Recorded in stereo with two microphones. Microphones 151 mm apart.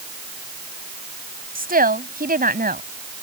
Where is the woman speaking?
70° right (ahead or behind).